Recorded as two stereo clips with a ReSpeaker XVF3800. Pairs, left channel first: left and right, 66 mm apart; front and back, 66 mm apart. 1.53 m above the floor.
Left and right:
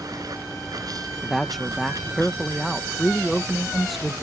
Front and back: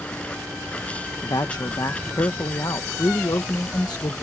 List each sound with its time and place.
0.0 s running water: 70° right
1.2 s a woman speaking: straight ahead